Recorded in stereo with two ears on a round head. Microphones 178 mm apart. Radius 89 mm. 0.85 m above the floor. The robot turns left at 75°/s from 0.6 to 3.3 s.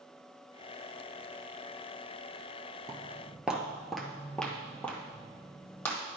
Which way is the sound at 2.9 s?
20° right (ahead or behind).